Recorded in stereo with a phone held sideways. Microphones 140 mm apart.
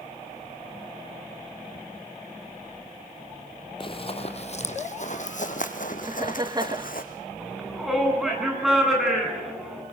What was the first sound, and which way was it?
Running footsteps, 35° left (ahead or behind).